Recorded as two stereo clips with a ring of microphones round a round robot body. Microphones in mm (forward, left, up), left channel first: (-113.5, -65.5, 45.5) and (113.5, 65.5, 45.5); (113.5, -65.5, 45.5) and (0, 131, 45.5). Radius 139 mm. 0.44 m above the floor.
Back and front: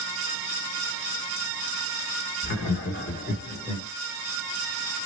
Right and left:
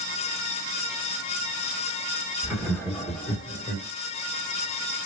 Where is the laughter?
160° right, 1.5 m; by 3.9 s 95° right, 1.4 m.